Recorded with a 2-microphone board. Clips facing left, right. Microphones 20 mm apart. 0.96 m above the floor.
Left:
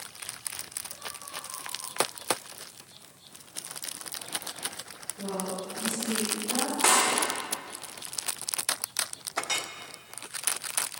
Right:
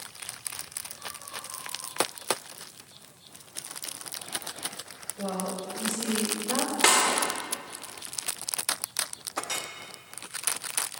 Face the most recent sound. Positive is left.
turn(degrees=25)  # may be behind; listen again after turning